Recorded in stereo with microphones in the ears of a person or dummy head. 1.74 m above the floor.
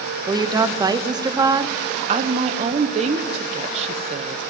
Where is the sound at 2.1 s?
35° right (ahead or behind), 1.1 m.